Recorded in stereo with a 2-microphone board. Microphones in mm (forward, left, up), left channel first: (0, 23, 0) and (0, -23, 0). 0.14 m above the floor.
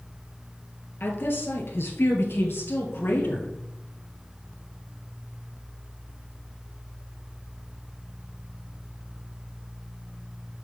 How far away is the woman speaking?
About 2 m.